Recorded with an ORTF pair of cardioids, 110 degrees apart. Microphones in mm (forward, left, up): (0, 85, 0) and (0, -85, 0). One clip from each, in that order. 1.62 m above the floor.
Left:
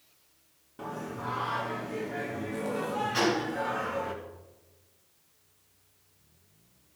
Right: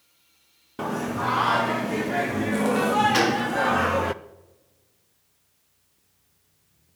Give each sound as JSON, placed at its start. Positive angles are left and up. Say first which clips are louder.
{"t": 0.8, "sound": "singing", "louder": "right 10 dB", "azimuth_deg": -60, "distance_m": 0.8}
{"t": 3.1, "sound": "a gunshot", "louder": "right 6 dB", "azimuth_deg": -70, "distance_m": 3.5}